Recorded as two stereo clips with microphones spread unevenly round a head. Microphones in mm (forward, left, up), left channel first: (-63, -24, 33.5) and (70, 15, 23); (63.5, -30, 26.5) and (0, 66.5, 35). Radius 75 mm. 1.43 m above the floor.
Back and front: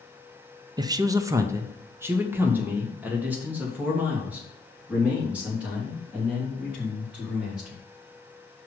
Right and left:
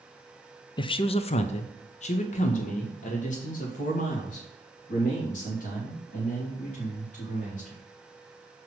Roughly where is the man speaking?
Ahead right.